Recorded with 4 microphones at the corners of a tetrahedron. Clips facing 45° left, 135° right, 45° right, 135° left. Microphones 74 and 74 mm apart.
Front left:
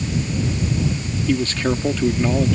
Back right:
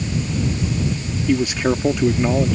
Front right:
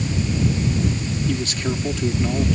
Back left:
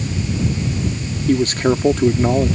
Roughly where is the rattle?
I don't hear a rattle.